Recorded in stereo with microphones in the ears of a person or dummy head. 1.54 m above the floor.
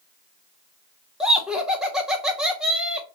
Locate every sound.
1.2 s laughter: centre (ahead or behind), 0.6 m